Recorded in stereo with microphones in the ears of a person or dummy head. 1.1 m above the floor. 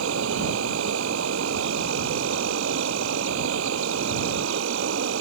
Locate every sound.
0.0 s an insect: 65° right (ahead or behind)